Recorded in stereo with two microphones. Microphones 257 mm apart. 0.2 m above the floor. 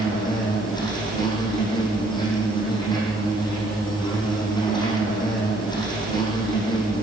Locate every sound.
0.0 s an insect: 15° left (ahead or behind), 6 m